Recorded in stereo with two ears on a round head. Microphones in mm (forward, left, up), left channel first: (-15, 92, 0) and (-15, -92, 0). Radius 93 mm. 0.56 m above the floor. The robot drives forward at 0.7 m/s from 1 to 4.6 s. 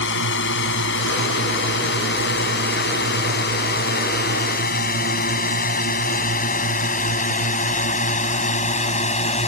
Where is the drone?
65° left (ahead or behind); by 9.5 s 35° left (ahead or behind).